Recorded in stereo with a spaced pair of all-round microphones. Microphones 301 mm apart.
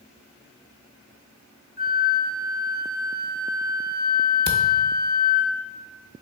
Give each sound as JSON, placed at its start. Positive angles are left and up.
{"t": 1.8, "sound": "a flute", "side_deg": 30, "distance_m": 0.6}
{"t": 4.5, "sound": "a camera shutter", "side_deg": 35, "distance_m": 0.5}